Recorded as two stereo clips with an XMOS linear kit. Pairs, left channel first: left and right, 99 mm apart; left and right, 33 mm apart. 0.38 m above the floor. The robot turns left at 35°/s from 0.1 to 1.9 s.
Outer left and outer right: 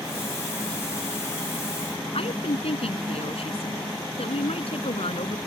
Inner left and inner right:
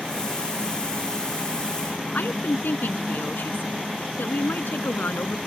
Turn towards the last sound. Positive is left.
turn(degrees=75)  # may be behind; listen again after turning